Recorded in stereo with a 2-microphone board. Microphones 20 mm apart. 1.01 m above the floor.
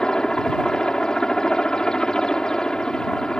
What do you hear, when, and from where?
0.0 s a helicopter: 45° left (ahead or behind)